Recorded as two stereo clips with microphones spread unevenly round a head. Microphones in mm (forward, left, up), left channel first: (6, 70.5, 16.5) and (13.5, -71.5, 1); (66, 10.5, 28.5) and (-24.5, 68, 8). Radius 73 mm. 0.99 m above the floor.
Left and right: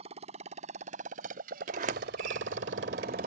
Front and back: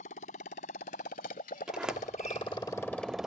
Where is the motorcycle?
40° right; by 3.3 s 120° right.